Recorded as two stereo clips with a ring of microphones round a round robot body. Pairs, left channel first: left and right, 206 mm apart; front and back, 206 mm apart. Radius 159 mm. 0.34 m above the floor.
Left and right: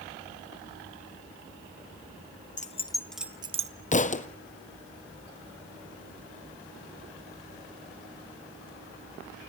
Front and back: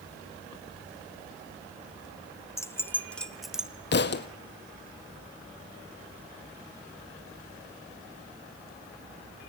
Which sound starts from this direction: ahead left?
A thud, at 3.9 s.